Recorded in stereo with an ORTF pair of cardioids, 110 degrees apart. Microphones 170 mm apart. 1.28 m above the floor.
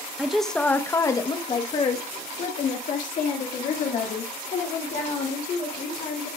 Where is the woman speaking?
5° right, 1.1 m; by 6.3 s 65° left, 3.5 m.